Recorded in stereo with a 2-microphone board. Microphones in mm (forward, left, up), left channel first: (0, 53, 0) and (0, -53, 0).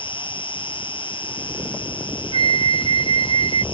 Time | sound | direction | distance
0.0 | an insect | 55° left (ahead or behind) | ?
2.3 | a flute | 50° right (ahead or behind) | ?